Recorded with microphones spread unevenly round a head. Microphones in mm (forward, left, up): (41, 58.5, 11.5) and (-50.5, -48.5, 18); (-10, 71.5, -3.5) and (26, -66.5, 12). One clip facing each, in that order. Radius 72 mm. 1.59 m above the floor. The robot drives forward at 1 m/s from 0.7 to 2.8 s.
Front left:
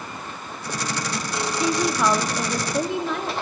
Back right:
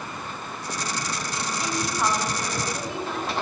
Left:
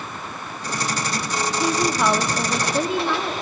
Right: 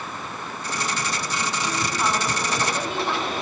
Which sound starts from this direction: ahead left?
A woman speaking, at 1.6 s.